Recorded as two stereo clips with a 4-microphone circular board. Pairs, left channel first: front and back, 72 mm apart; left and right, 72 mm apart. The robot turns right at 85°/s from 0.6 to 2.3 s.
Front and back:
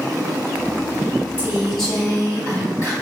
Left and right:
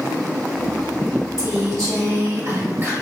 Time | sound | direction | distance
1.4 | a woman speaking | 120° right | 1.7 m